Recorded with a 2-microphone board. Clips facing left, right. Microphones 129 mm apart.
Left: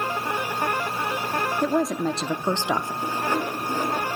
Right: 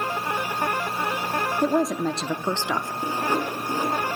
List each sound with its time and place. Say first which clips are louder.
1.6 s a woman speaking: right 1 dB; 10° right (ahead or behind), 0.6 m; by 2.9 s 20° left (ahead or behind), 0.8 m
3.0 s sawing: right 3 dB; 15° right (ahead or behind), 5 m